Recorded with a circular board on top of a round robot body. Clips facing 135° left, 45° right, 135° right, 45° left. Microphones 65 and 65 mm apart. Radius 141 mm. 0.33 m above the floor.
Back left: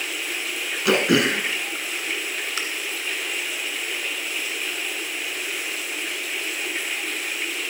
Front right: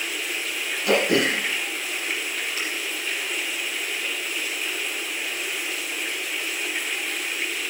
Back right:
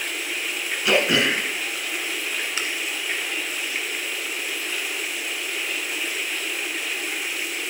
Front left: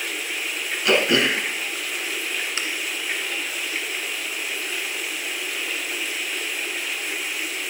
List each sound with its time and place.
0.8 s throat clearing: 140° left, 1.7 m